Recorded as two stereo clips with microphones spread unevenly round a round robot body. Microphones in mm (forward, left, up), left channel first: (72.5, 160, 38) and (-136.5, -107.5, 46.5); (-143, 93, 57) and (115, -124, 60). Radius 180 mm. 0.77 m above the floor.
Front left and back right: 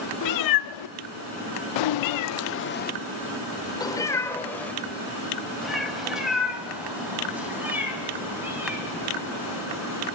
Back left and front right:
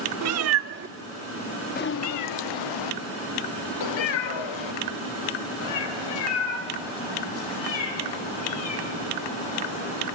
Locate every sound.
0.2 s a cat meowing: 10° left, 1.0 m; by 10.1 s 150° left, 4.5 m